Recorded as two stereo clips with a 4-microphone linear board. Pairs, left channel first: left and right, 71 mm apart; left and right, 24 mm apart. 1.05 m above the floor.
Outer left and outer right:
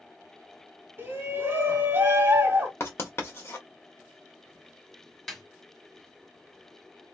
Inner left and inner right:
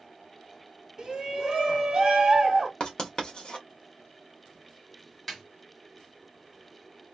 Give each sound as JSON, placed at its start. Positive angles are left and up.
{"t": 1.0, "sound": "a shout", "side_deg": -30, "distance_m": 2.0}
{"t": 2.8, "sound": "writing", "side_deg": 35, "distance_m": 1.4}
{"t": 5.3, "sound": "a snare drum", "side_deg": 5, "distance_m": 1.5}